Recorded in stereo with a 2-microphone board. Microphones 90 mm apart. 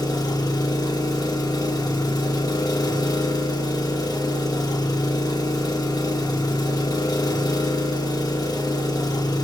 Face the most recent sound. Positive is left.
turn(degrees=45)  # may be behind; listen again after turning